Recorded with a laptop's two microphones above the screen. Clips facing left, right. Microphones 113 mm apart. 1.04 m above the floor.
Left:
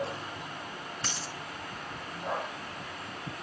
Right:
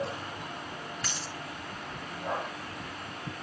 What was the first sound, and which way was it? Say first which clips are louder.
A dropped coin: even; 30° left (ahead or behind).